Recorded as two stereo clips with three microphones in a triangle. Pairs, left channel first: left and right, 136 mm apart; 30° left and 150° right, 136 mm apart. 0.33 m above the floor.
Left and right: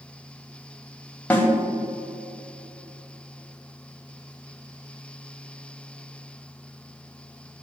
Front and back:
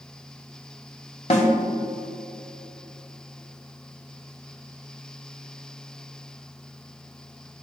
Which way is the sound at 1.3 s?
15° left.